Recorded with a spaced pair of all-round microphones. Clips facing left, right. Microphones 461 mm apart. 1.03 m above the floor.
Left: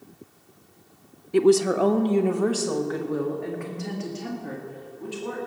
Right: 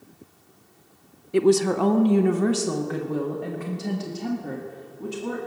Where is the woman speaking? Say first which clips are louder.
Left 1 dB; 10° left (ahead or behind), 0.5 m; by 5.4 s 55° right (ahead or behind), 2.5 m.